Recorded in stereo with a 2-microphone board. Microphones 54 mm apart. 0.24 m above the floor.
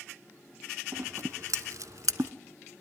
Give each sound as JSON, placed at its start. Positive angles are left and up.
{"t": 0.9, "sound": "scissors", "side_deg": -70, "distance_m": 0.7}